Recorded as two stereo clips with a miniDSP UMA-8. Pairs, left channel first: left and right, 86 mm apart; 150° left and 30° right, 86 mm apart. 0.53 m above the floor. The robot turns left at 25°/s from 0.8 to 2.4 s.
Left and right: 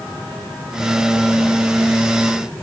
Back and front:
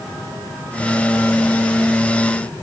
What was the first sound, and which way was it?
Only background noise.